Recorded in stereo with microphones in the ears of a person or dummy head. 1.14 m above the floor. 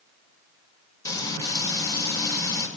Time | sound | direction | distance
1.1 | frying | 20° left (ahead or behind) | 1.8 m